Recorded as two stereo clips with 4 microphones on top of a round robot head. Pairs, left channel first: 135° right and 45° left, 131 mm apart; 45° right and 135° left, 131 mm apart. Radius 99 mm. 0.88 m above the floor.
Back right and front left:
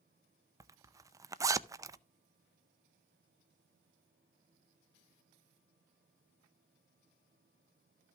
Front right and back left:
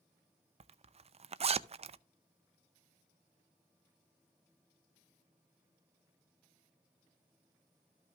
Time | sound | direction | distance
0.6 | a zipper | 110° left | 0.6 m